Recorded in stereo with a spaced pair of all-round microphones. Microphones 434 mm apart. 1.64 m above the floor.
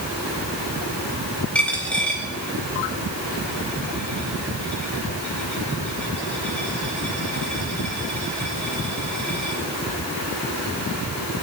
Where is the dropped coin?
5° left (ahead or behind), 4 m.